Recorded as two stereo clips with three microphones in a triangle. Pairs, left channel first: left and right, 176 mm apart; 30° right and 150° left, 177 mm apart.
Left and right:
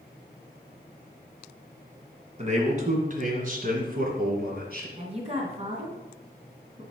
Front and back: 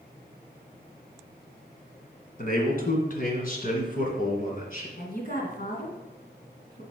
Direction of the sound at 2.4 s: 50° right.